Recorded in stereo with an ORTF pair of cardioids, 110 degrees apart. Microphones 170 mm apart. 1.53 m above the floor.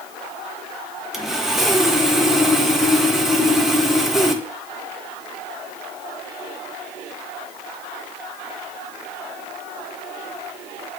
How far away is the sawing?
About 1.8 m.